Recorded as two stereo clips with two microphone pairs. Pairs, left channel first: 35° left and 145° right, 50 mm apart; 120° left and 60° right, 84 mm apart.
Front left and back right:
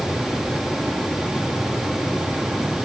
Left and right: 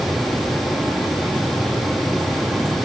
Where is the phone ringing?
I don't hear a phone ringing.